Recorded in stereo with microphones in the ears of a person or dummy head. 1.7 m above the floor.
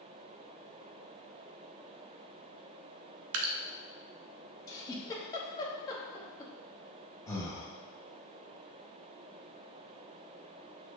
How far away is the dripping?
About 0.6 m.